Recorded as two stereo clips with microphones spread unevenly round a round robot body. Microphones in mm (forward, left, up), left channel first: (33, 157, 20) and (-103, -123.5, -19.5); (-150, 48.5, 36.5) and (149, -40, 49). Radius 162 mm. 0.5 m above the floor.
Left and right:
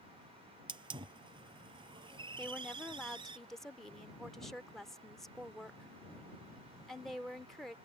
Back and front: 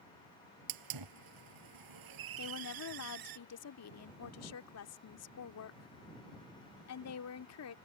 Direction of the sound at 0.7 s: 40° right.